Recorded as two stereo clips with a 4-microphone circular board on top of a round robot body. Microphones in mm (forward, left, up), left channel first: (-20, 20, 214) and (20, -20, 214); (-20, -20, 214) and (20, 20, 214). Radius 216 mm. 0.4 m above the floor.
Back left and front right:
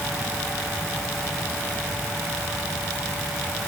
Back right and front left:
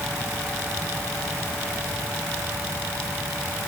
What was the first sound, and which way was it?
Only background noise.